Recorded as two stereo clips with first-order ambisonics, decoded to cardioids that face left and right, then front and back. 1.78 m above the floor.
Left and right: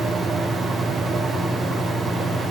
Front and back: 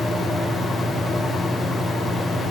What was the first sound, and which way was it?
Only background noise.